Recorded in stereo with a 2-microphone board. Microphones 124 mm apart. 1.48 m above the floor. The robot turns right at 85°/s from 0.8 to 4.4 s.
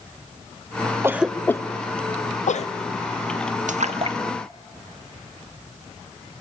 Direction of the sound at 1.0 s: 20° right (ahead or behind).